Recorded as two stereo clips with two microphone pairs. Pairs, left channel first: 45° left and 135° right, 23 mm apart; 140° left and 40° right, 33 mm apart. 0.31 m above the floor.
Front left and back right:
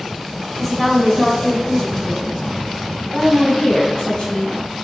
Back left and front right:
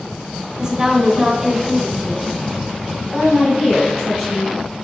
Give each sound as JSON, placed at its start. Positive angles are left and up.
{"t": 0.6, "sound": "a woman speaking", "azimuth_deg": -20, "distance_m": 1.0}